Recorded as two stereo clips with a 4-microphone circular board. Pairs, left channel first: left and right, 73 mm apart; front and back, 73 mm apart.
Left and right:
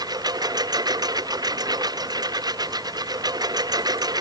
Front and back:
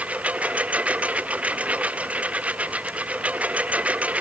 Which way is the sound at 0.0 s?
110° right.